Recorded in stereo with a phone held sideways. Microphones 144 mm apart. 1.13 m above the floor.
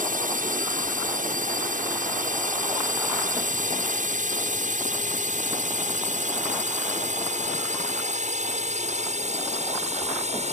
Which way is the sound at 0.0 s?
70° right (ahead or behind).